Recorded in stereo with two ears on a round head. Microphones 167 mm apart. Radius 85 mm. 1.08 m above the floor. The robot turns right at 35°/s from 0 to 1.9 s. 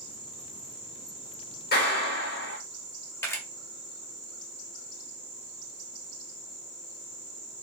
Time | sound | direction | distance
1.7 | a clap | 50° left (ahead or behind) | 1.8 m
3.2 | a camera shutter | 15° left (ahead or behind) | 1.1 m